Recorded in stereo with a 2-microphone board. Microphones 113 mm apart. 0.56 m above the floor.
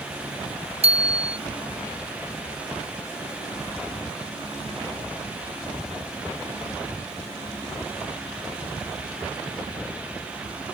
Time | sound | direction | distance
0.8 | a bicycle bell | 60° right (ahead or behind) | ?